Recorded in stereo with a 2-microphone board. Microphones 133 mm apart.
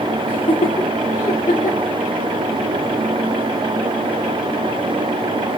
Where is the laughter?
40° left (ahead or behind), 2 m; by 1.9 s 85° left, 3.5 m.